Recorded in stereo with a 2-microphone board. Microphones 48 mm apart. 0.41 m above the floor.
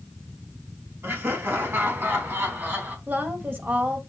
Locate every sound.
1.0 s laughter: 60° right (ahead or behind), 4 m; by 3.0 s 45° right (ahead or behind), 3.5 m
3.1 s a woman speaking: 45° right (ahead or behind), 1.9 m